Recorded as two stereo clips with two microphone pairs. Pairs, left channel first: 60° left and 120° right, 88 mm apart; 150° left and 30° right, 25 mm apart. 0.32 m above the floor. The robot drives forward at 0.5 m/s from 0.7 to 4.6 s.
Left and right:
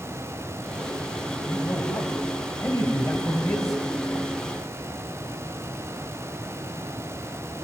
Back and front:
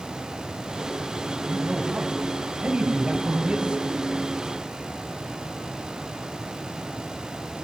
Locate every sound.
1.5 s a man speaking: 10° left, 3 m; by 3.8 s 20° left, 2 m